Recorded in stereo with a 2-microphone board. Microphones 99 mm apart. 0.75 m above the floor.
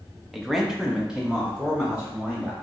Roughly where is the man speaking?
Centre.